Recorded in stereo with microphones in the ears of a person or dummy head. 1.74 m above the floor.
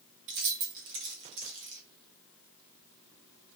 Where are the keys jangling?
60° right (ahead or behind), 1.5 m.